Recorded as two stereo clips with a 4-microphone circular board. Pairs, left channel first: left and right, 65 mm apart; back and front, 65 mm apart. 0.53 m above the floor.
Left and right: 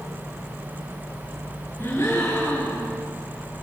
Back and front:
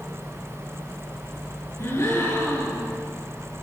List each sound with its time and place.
1.8 s a gasp: 140° left, 9 m